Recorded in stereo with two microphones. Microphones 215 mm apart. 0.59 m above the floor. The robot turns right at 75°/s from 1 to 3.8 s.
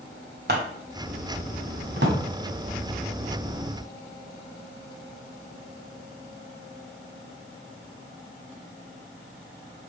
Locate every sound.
0.5 s scissors: 50° right (ahead or behind), 1.7 m
2.0 s a drawer: 50° right (ahead or behind), 2.0 m; by 2.2 s 70° right (ahead or behind), 2.0 m